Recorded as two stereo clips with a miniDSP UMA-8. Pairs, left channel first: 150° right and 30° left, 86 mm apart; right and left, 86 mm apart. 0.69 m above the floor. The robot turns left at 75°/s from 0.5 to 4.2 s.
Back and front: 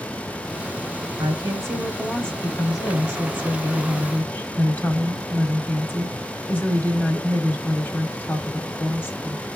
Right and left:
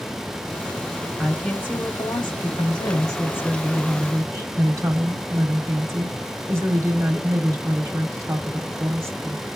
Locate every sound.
1.2 s a woman speaking: 10° left, 1.4 m; by 9.4 s 145° left, 1.4 m